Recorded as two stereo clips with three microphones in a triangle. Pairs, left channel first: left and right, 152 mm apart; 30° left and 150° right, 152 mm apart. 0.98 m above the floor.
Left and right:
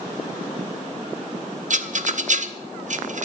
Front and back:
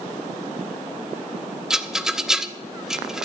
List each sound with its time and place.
1.7 s a rattle: 65° right, 0.7 m